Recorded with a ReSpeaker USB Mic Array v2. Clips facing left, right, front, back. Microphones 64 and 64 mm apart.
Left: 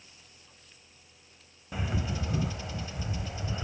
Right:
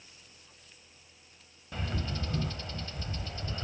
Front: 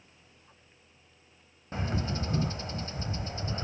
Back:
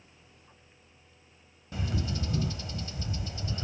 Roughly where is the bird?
Ahead.